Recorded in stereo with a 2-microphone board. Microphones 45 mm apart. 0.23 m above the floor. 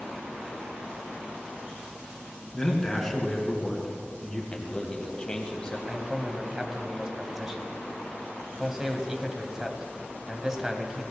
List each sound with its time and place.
2.5 s a man speaking: 10° left (ahead or behind), 2.5 m
4.5 s a man speaking: 20° left (ahead or behind), 1.2 m
5.9 s a man speaking: 15° right (ahead or behind), 1.2 m